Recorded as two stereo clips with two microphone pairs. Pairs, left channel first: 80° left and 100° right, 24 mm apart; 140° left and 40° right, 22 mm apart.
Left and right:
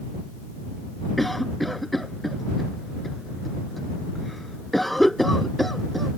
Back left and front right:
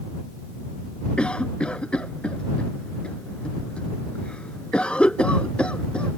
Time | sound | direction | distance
1.2 | a cough | 170° left | ?